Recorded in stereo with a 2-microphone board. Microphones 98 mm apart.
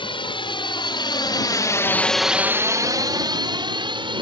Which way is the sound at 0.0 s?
65° left (ahead or behind).